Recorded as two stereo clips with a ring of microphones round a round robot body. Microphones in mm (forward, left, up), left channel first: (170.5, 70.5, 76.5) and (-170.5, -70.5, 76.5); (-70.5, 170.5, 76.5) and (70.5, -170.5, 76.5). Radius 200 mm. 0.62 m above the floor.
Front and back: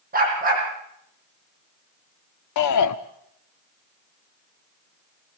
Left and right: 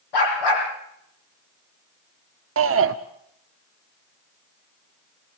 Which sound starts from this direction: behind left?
A dog barking, at 0.1 s.